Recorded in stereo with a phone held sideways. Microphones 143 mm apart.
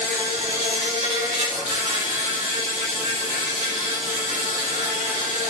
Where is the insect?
70° right (ahead or behind), 4 m.